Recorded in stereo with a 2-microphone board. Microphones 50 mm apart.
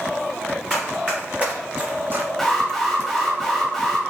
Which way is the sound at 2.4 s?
Centre (ahead or behind).